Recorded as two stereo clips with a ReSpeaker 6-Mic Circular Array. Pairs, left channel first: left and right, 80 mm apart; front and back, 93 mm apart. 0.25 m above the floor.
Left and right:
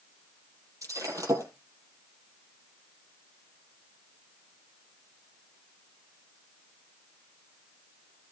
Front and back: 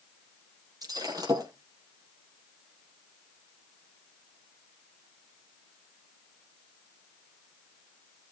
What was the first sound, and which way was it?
Breaking glass, 135° right.